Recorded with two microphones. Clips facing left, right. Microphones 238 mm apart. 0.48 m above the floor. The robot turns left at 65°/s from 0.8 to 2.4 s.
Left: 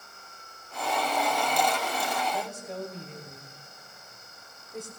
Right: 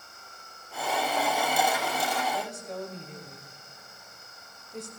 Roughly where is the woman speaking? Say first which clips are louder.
Even; centre.